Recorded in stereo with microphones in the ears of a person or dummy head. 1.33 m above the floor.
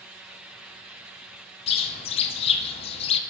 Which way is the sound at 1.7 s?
25° left (ahead or behind).